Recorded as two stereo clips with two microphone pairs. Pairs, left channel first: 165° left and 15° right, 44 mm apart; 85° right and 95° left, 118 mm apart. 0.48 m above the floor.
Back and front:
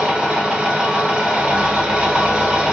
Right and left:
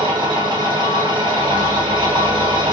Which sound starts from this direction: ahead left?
An engine running, at 0.0 s.